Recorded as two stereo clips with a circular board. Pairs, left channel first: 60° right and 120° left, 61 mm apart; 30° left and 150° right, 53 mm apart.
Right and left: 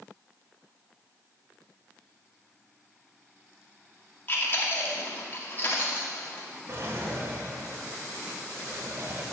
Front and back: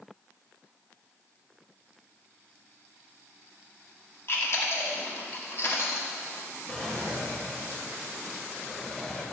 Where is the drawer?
100° left, 1.2 m.